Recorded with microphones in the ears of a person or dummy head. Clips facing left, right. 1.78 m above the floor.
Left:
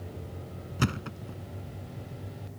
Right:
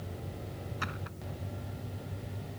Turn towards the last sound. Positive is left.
turn(degrees=50)  # may be behind; listen again after turning